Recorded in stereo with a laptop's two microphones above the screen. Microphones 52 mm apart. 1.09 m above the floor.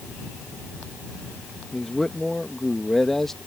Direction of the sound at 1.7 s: 5° left (ahead or behind).